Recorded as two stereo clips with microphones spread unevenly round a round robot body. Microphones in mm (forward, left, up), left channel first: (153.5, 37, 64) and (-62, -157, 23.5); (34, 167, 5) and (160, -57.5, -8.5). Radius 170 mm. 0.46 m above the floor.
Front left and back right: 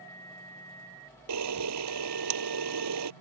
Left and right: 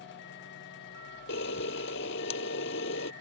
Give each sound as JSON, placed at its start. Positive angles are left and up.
{"t": 1.3, "sound": "a camera shutter", "azimuth_deg": 175}